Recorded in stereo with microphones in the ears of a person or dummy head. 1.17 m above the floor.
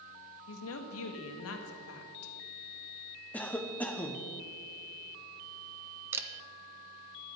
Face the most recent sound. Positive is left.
turn(degrees=-15)  # may be behind; listen again after turning